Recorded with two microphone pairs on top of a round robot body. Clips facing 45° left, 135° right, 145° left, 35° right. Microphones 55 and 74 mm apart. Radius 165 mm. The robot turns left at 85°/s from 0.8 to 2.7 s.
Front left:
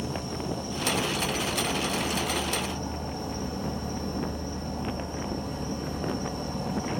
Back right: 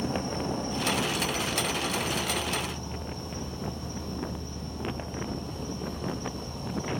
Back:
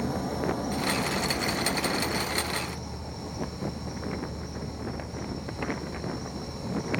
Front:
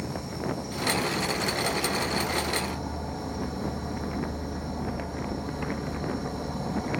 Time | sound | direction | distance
0.0 | an insect | straight behind | 3.5 m